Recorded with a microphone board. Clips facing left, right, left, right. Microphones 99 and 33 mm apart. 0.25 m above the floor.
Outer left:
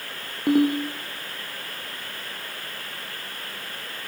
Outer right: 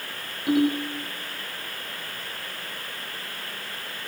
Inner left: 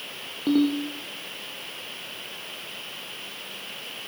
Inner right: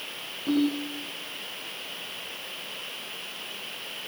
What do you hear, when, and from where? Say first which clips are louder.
0.5 s a ringtone: outer left 2 dB, inner left 3 dB; 50° left (ahead or behind), 7.5 m